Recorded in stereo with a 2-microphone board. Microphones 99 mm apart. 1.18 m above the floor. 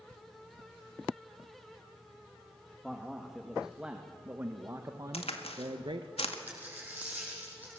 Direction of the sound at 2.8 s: 5° left (ahead or behind).